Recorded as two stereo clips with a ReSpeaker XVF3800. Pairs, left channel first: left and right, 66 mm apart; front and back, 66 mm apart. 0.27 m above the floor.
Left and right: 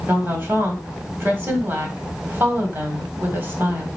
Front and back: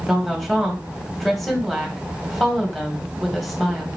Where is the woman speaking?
85° right, 1.4 m.